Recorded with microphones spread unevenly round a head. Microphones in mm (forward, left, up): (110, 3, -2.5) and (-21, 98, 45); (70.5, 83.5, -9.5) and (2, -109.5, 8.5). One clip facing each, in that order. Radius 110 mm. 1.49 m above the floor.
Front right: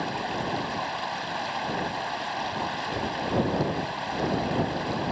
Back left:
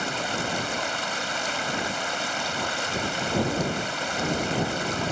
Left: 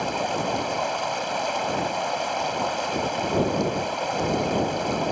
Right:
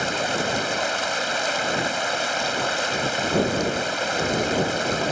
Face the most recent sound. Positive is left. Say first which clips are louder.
# even, right 1 dB
turn(degrees=180)